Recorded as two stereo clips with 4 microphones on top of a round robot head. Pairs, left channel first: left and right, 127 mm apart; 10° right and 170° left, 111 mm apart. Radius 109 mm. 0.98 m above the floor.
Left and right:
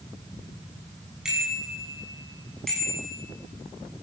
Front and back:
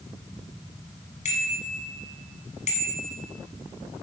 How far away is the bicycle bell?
About 7 m.